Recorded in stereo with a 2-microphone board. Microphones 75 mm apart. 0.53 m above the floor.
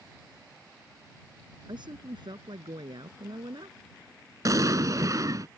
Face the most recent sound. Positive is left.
turn(degrees=-50)  # may be behind; listen again after turning